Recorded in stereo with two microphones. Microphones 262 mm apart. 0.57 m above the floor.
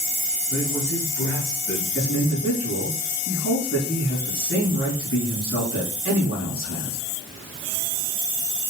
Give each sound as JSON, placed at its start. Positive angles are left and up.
{"t": 0.5, "sound": "a man speaking", "side_deg": 55, "distance_m": 5.5}
{"t": 1.9, "sound": "a man speaking", "side_deg": 55, "distance_m": 5.5}